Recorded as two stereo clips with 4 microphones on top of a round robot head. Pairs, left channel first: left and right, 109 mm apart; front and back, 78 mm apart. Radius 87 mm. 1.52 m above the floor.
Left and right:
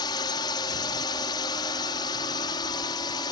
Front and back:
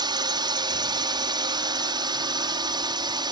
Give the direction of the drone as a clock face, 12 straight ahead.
7 o'clock.